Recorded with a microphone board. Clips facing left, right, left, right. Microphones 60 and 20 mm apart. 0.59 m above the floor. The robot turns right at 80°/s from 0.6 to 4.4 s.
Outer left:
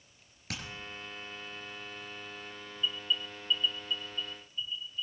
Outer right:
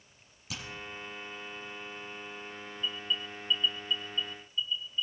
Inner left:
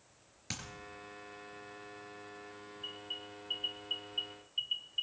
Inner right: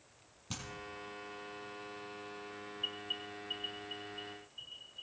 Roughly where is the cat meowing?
I don't hear a cat meowing.